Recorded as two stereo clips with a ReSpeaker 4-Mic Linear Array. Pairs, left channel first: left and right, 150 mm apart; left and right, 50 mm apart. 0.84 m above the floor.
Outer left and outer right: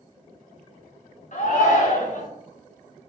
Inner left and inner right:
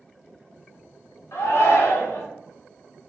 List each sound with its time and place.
1.3 s a shout: 55° left (ahead or behind), 0.9 m